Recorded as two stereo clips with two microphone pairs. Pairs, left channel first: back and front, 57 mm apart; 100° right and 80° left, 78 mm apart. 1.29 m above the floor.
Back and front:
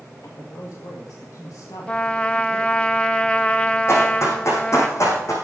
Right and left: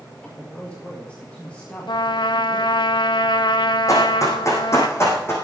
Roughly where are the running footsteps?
Behind right.